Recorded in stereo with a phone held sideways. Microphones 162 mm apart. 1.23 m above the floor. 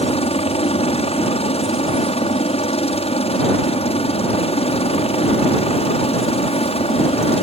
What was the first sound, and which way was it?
A helicopter, 40° left (ahead or behind).